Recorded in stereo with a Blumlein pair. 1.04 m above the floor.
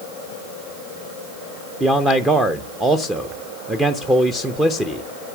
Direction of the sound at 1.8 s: 10° right.